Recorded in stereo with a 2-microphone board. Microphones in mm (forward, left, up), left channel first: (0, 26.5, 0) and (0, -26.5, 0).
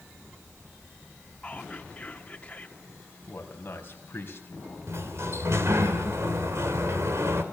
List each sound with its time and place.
1.4 s whispering: 15° left (ahead or behind), 1.5 m
3.3 s a man speaking: 40° left (ahead or behind), 4.5 m
4.9 s a sliding door: 60° right (ahead or behind), 3 m